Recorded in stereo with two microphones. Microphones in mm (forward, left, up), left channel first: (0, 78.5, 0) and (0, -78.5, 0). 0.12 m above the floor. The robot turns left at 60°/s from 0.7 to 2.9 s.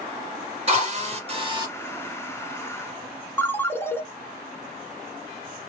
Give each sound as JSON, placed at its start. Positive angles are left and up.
{"t": 0.7, "sound": "a drill", "azimuth_deg": -75, "distance_m": 2.0}
{"t": 3.4, "sound": "a ringtone", "side_deg": 15, "distance_m": 0.5}